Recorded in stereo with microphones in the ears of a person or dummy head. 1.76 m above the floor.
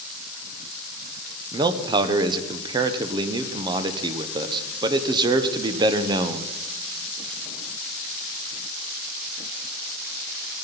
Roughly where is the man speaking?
Right.